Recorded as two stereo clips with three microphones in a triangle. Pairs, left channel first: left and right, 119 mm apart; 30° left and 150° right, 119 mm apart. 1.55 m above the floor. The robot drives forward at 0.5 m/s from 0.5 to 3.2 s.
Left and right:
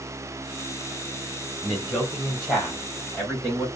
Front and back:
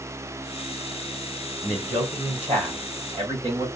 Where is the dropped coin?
I don't hear a dropped coin.